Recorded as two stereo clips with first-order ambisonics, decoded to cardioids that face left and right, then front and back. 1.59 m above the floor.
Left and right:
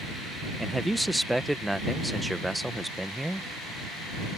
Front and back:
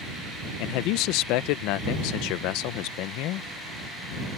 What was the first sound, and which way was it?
A man speaking, 5° right.